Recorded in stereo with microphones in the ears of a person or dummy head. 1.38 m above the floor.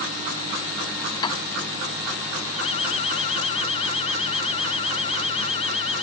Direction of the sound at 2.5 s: 35° left (ahead or behind).